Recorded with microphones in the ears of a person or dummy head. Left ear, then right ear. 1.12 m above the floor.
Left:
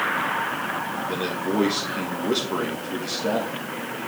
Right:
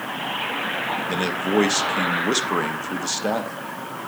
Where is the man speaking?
55° right (ahead or behind), 1.1 m.